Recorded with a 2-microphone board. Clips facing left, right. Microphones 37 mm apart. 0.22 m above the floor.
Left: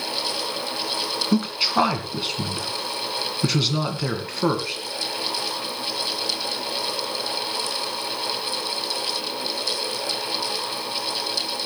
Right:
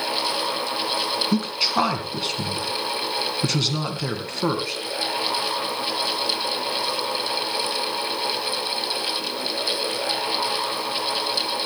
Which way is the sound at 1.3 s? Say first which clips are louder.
Left 4 dB; 5° left (ahead or behind).